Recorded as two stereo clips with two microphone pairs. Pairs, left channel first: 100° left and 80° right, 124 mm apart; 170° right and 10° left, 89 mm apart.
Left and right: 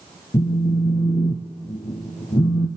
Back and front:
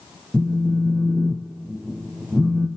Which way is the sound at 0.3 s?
100° left.